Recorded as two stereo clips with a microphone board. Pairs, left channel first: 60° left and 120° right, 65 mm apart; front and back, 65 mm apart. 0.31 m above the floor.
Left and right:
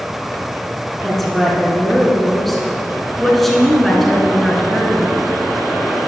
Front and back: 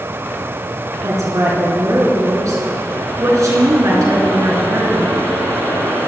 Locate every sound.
1.0 s a woman speaking: 145° left, 3 m